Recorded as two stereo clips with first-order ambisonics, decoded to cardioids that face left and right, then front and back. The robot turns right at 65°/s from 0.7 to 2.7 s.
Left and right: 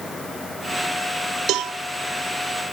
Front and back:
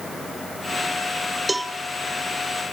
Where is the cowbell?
100° right, 0.6 m; by 1.7 s 85° right, 0.6 m.